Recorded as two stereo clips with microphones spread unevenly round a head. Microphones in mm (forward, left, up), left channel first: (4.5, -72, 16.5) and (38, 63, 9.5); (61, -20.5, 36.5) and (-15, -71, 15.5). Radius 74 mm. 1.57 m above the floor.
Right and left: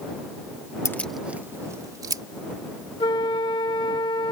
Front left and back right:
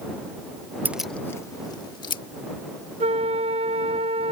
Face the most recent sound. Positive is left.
turn(degrees=-165)